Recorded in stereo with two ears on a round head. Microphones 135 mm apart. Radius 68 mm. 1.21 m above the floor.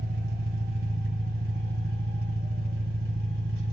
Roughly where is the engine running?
Right.